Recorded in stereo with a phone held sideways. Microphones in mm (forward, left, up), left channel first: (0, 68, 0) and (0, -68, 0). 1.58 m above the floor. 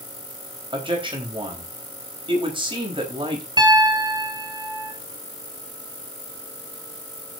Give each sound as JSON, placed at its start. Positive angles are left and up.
{"t": 0.7, "sound": "a man speaking", "side_deg": -40, "distance_m": 4.0}
{"t": 3.6, "sound": "a piano", "side_deg": -35, "distance_m": 2.0}